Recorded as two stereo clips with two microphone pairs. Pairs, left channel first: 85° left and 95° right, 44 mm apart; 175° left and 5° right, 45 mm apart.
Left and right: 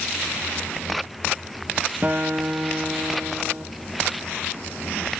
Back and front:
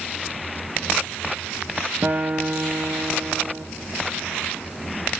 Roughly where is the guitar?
Ahead right.